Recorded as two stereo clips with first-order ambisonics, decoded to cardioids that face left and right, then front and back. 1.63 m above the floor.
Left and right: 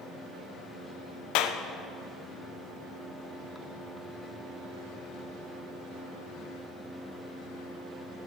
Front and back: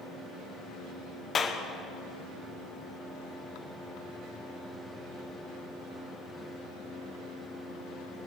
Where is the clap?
70° left, 1.0 m.